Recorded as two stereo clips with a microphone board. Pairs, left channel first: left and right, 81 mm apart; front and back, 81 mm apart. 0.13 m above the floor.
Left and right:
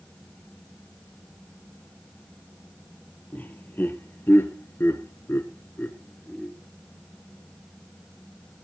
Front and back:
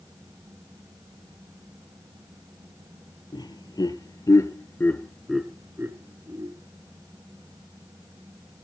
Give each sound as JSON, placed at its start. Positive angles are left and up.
{"t": 3.3, "sound": "laughter", "azimuth_deg": 25, "distance_m": 3.5}